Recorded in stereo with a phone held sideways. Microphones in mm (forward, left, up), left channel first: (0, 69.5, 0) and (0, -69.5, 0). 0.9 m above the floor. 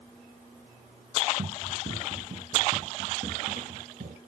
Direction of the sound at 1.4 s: 70° right (ahead or behind).